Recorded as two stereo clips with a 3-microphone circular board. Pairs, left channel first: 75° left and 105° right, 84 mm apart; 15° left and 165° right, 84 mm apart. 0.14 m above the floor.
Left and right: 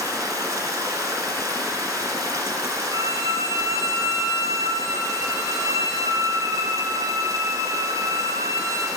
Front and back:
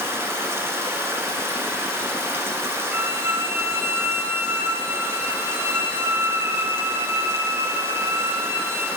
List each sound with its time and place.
0.0 s running water: 125° right, 1.7 m
2.9 s a violin: 125° right, 1.1 m